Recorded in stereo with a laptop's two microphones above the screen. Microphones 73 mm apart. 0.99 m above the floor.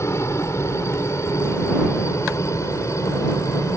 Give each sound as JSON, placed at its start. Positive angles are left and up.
{"t": 0.0, "sound": "a helicopter", "side_deg": 40}